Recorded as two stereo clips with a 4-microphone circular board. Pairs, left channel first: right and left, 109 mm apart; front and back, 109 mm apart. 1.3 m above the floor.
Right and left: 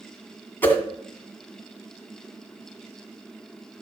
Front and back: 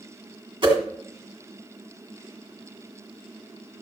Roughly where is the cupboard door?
I don't hear a cupboard door.